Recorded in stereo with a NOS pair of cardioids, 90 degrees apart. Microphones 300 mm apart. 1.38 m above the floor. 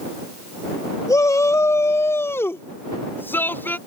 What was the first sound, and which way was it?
A shout, 10° left.